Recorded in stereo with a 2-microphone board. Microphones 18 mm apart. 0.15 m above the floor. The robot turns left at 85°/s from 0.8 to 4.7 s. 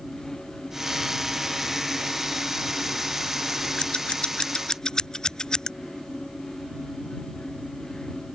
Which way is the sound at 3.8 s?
40° left (ahead or behind).